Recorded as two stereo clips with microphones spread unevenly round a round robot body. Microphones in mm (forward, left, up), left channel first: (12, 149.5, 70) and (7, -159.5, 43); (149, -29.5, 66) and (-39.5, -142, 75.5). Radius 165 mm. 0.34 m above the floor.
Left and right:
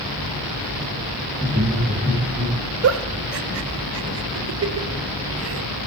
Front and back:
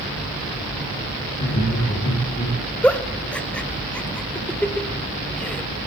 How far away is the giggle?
About 0.8 m.